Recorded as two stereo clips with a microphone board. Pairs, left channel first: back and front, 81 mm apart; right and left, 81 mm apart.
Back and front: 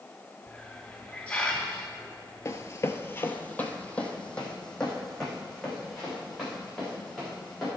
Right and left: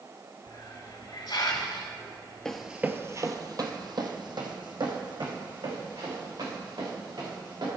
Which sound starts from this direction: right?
A hiss, at 0.5 s.